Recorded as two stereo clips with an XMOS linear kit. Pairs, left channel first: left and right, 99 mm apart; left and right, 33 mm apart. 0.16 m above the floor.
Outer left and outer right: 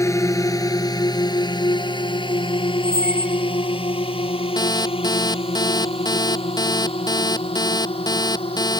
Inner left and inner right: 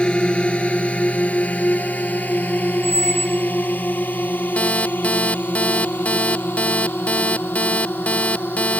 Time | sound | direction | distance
0.0 | a drone | 30° left (ahead or behind) | ?
2.8 | a squeak | 15° right (ahead or behind) | ?
4.6 | an alarm clock | 45° left (ahead or behind) | ?